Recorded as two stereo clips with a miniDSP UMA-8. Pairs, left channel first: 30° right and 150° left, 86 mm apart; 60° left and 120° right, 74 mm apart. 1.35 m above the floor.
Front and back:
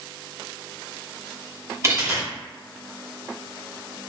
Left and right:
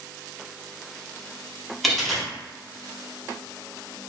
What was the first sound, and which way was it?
A dropped coin, 150° left.